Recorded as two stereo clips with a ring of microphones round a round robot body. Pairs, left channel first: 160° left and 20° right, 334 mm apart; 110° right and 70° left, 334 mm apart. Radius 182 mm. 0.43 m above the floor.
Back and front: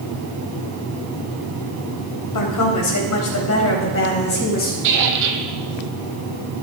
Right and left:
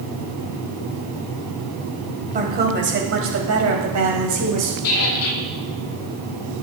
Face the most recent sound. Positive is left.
turn(degrees=-65)